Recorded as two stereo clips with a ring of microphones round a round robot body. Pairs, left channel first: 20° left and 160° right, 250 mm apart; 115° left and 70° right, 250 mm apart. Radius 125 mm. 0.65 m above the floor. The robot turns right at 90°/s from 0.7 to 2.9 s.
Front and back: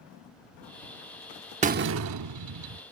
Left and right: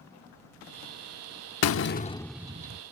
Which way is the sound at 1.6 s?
140° left.